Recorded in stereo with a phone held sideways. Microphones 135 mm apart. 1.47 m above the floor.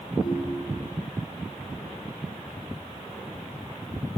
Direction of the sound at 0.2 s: 35° left (ahead or behind).